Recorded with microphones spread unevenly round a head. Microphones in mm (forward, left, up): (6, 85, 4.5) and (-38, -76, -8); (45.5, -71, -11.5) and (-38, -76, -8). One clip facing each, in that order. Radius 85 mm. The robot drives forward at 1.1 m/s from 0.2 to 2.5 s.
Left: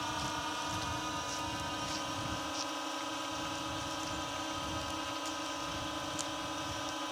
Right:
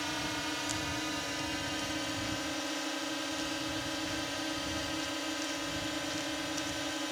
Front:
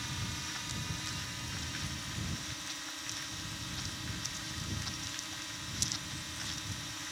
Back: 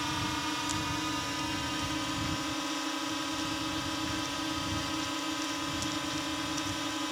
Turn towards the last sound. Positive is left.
turn(degrees=-170)